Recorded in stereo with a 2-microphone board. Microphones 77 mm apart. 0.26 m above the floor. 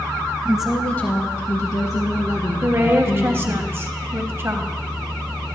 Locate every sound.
0.5 s a woman speaking: 15° right (ahead or behind), 1.0 m; by 3.6 s 50° left (ahead or behind), 4.5 m
2.6 s a woman speaking: 35° right (ahead or behind), 1.2 m